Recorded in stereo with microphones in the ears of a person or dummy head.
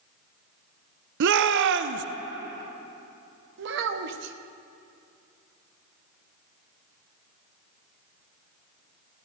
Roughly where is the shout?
Right.